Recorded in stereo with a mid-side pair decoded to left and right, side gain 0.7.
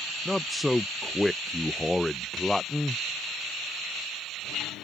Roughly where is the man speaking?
Ahead.